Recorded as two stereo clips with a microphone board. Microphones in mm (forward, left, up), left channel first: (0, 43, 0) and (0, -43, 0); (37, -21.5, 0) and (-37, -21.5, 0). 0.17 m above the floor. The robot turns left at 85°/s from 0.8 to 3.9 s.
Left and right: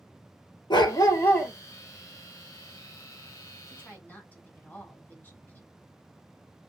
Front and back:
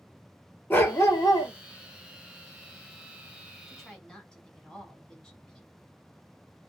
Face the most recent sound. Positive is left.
turn(degrees=60)